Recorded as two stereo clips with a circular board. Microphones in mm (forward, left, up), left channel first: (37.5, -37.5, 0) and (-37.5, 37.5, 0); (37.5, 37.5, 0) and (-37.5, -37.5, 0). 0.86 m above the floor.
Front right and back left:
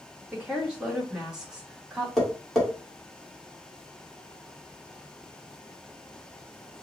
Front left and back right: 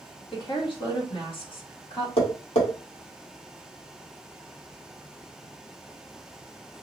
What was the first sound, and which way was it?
A woman speaking, 55° left.